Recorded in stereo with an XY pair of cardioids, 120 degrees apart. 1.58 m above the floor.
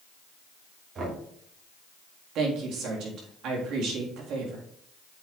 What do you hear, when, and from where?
0.9 s knocking: 45° right, 2.5 m
2.4 s a woman speaking: 70° right, 3.5 m